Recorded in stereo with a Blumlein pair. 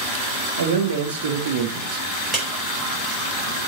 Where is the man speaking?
70° right, 1.5 m; by 2.0 s 35° right, 1.2 m.